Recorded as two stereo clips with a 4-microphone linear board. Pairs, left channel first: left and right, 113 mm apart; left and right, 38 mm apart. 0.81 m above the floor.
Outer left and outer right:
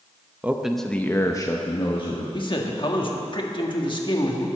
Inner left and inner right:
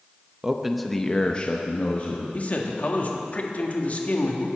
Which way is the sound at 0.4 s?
15° right (ahead or behind).